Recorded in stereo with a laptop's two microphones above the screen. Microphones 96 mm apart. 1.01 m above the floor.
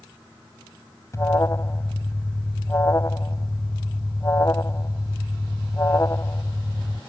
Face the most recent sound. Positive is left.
turn(degrees=35)  # may be behind; listen again after turning